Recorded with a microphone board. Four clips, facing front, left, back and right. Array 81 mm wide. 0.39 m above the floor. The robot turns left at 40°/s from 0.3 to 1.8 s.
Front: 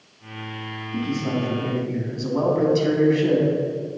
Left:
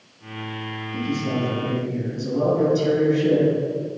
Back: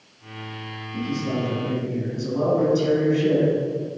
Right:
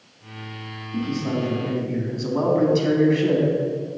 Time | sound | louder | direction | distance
0.9 | a man speaking | even, front 1 dB | 10° right | 3 m